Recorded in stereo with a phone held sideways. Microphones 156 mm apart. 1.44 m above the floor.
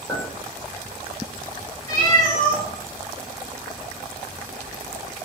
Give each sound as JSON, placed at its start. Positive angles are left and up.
{"t": 0.1, "sound": "a clink", "side_deg": 20, "distance_m": 1.5}
{"t": 1.9, "sound": "a cat meowing", "side_deg": 25, "distance_m": 1.3}